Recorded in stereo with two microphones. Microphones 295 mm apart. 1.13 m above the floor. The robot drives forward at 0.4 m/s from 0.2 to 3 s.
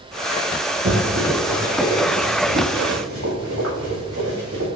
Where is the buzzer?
I don't hear a buzzer.